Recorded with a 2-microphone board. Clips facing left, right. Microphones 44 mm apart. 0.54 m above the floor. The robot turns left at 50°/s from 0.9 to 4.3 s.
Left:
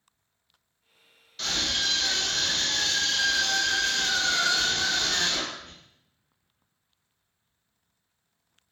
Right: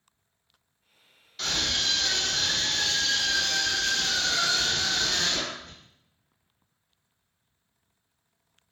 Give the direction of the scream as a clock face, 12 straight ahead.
6 o'clock.